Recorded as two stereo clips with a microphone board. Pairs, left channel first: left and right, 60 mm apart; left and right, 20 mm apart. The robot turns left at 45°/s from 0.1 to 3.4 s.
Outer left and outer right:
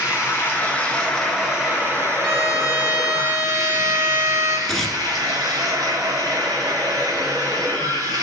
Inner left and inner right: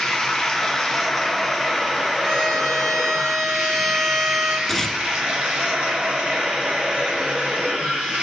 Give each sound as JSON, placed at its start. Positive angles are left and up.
{"t": 0.0, "sound": "running water", "azimuth_deg": 55, "distance_m": 2.5}
{"t": 2.2, "sound": "a violin", "azimuth_deg": 10, "distance_m": 1.8}
{"t": 4.7, "sound": "tearing paper", "side_deg": 5, "distance_m": 1.0}